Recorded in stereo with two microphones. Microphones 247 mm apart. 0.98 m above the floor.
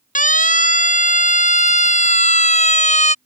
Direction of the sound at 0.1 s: 30° left (ahead or behind).